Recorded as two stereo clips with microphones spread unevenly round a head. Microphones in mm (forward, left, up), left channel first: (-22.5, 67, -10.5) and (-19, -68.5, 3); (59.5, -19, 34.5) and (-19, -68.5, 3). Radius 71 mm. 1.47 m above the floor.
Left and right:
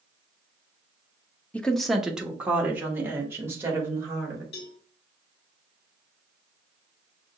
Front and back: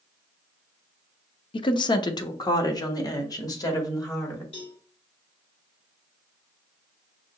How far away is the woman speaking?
About 0.6 m.